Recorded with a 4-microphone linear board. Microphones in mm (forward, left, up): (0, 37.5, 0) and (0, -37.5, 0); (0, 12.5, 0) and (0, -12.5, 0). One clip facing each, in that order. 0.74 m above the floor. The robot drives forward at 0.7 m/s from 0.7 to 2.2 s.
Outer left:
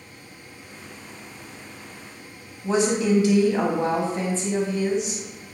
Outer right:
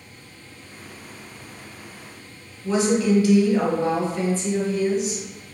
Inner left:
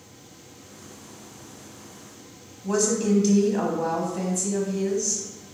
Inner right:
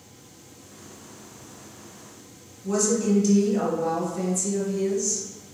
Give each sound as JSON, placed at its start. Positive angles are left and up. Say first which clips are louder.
{"t": 2.6, "sound": "a woman speaking", "louder": "outer right 1 dB, even", "side_deg": 25, "distance_m": 1.0}